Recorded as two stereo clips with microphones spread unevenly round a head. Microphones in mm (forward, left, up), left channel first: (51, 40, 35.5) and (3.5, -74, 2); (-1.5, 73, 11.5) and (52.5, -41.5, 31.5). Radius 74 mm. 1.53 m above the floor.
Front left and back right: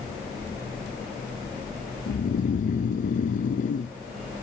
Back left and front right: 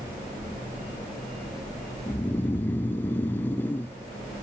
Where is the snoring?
45° left, 0.6 m.